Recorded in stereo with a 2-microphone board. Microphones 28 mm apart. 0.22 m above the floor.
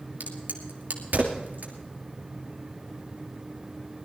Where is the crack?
75° right (ahead or behind), 2.5 m.